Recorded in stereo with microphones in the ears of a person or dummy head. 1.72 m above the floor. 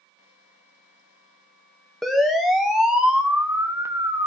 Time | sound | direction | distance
2.0 | a siren | 5° left (ahead or behind) | 3 m